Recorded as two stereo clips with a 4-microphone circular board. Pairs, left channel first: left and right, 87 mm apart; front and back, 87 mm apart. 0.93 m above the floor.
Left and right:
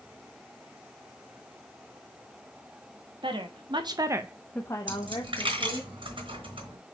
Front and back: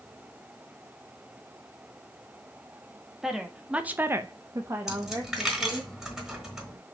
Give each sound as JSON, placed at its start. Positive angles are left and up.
{"t": 3.2, "sound": "a woman speaking", "azimuth_deg": -95, "distance_m": 1.6}
{"t": 4.9, "sound": "a dropped coin", "azimuth_deg": -95, "distance_m": 3.0}